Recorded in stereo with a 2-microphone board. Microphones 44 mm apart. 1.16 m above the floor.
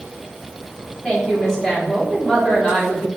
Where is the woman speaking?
10° left (ahead or behind), 3.5 m.